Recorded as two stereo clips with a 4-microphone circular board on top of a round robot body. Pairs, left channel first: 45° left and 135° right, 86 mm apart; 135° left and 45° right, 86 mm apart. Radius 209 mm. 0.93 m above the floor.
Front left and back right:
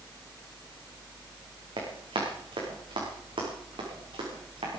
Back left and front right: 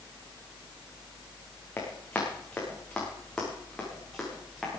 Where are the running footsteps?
155° right, 4.5 m; by 4.8 s 135° right, 5.5 m.